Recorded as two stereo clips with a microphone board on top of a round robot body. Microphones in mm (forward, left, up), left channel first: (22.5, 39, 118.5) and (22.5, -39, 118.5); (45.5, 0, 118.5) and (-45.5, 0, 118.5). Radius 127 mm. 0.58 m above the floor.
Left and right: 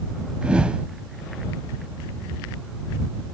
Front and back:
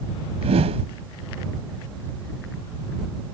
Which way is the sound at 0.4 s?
170° right.